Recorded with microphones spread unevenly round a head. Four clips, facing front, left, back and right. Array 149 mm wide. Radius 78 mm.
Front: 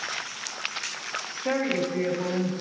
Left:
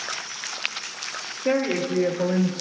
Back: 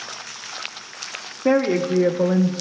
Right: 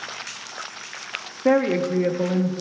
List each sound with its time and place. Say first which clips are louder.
1.4 s a woman speaking: right 4 dB, back 8 dB; 135° right, 1.1 m; by 2.5 s 175° left, 1.0 m